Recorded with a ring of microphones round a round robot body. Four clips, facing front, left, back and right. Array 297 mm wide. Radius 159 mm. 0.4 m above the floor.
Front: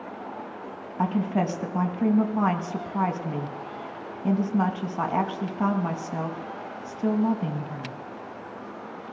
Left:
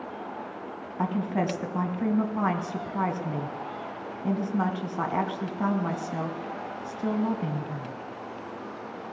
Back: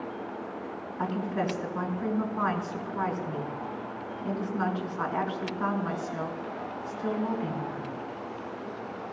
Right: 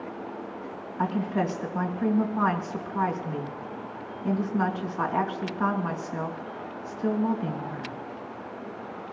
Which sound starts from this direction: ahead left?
A woman speaking, at 1.0 s.